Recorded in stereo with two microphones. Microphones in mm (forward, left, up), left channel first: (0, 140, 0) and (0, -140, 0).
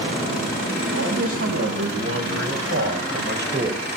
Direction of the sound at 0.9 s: 55° right (ahead or behind).